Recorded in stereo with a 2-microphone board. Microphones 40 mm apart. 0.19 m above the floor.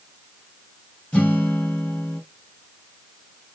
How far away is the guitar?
About 3 m.